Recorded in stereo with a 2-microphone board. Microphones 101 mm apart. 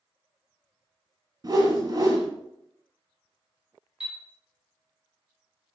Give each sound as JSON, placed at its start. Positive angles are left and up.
{"t": 1.4, "sound": "a whoosh", "side_deg": -40, "distance_m": 1.0}
{"t": 4.0, "sound": "a chime", "side_deg": -5, "distance_m": 1.2}